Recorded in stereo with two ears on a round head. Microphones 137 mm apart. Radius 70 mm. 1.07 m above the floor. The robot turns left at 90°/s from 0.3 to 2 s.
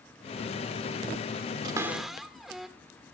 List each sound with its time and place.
1.6 s a cupboard door: 35° right (ahead or behind), 1.6 m; by 2.7 s centre (ahead or behind), 1.6 m